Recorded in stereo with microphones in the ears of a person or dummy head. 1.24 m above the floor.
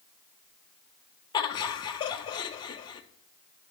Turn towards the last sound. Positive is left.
turn(degrees=20)  # may be behind; listen again after turning